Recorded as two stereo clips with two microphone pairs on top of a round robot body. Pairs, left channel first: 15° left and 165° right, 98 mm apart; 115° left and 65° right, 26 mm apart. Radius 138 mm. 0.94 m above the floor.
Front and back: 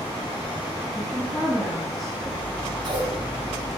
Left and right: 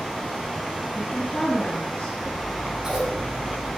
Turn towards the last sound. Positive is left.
turn(degrees=-130)